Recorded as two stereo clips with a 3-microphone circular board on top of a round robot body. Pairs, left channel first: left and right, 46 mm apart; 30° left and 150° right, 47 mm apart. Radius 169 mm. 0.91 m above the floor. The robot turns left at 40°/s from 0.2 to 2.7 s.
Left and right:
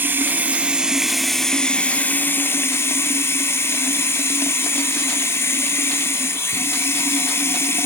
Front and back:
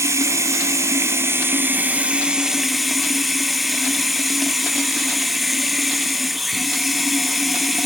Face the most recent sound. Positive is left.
turn(degrees=120)